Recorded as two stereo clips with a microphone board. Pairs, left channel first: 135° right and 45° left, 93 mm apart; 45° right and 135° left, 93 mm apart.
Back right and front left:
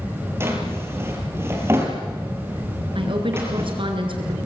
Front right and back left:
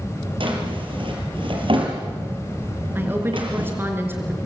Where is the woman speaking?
70° left, 4.5 m.